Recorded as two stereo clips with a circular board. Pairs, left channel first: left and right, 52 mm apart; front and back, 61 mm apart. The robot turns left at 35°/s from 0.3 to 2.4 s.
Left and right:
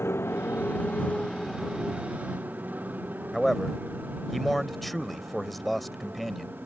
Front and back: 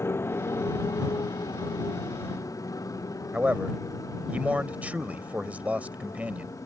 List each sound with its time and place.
0.0 s a motorcycle: 50° left; by 6.7 s 35° right
3.3 s a man speaking: 175° left